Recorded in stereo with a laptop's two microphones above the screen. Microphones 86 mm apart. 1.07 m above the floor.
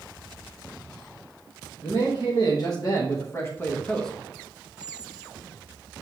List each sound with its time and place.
1.8 s a man speaking: 60° left (ahead or behind), 1.5 m; by 4.1 s 5° left (ahead or behind), 0.8 m
4.8 s a squeak: 5° left (ahead or behind), 3.5 m